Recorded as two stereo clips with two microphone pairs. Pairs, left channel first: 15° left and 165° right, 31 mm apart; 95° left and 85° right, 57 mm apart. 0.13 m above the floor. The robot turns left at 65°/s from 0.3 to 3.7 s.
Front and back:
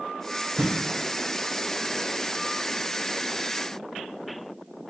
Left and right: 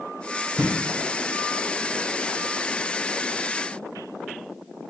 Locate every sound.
0.6 s a thud: 160° right, 1.9 m; by 0.7 s 170° right, 1.9 m